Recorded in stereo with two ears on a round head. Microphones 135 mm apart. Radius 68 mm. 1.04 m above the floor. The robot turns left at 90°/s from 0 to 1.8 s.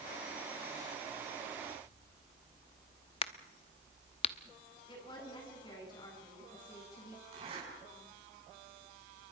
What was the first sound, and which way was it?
A crack, 35° left (ahead or behind).